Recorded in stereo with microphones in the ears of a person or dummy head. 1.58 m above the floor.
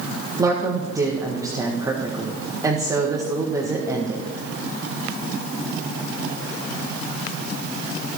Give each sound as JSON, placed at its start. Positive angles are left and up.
{"t": 0.4, "sound": "a woman speaking", "side_deg": -20, "distance_m": 1.8}